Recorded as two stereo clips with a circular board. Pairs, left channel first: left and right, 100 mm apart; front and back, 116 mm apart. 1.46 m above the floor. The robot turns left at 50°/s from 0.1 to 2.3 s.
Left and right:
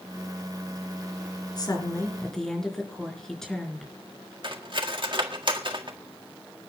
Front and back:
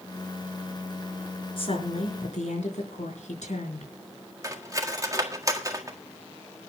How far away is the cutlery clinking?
About 1.6 m.